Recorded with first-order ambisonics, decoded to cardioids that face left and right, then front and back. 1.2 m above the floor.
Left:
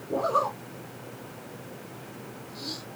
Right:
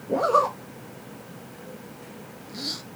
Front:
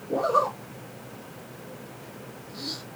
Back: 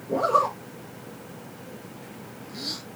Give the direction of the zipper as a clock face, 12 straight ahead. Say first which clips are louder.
Right 5 dB, back 1 dB; 4 o'clock.